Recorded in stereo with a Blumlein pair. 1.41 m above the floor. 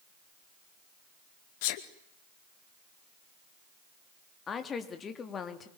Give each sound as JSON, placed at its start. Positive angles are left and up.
{"t": 1.6, "sound": "a sneeze", "azimuth_deg": 50, "distance_m": 1.7}
{"t": 4.5, "sound": "a woman speaking", "azimuth_deg": 20, "distance_m": 3.5}